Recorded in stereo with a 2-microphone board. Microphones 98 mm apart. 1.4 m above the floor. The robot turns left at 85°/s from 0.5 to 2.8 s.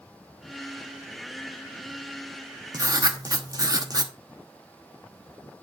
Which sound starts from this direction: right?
Writing, at 2.7 s.